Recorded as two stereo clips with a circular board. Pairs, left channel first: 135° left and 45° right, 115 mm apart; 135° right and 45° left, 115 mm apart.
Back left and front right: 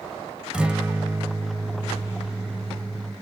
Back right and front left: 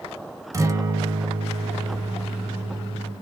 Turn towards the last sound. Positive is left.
turn(degrees=30)